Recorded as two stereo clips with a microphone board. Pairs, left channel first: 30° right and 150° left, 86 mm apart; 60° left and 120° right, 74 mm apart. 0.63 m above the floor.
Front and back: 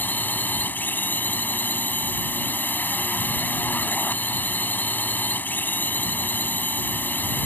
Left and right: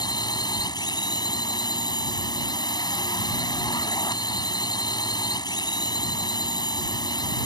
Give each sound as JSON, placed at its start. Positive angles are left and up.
{"t": 0.0, "sound": "a drone", "azimuth_deg": 35}